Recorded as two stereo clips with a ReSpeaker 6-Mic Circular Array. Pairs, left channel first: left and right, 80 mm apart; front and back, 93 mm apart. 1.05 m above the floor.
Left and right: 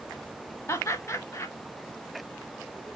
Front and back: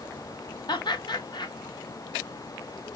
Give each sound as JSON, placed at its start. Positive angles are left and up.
{"t": 0.7, "sound": "laughter", "azimuth_deg": 35, "distance_m": 1.2}